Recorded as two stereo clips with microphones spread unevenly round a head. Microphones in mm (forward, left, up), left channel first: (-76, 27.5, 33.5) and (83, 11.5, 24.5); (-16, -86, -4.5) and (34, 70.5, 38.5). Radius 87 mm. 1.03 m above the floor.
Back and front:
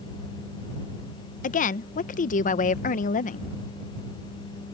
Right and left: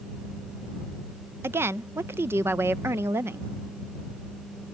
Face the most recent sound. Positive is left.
turn(degrees=160)